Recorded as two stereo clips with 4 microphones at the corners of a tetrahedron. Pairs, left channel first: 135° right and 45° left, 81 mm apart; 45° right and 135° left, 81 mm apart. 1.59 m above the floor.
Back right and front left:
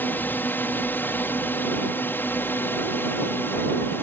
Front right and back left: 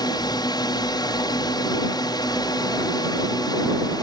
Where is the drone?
70° right; by 4.0 s 75° right.